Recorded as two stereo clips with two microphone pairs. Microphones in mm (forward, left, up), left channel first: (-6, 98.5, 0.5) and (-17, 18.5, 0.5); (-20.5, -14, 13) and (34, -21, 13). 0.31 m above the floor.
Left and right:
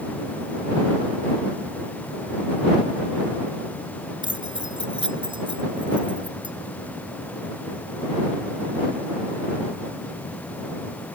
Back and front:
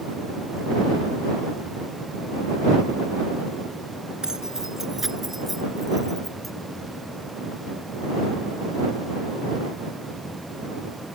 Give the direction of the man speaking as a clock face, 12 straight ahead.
No man speaking in this recording.